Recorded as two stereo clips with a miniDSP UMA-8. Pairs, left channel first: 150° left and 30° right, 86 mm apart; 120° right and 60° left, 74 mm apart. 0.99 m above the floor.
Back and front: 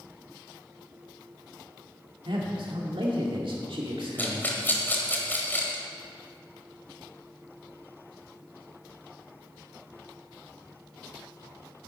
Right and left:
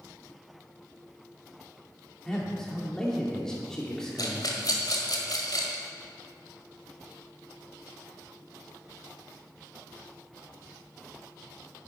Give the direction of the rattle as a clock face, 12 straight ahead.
5 o'clock.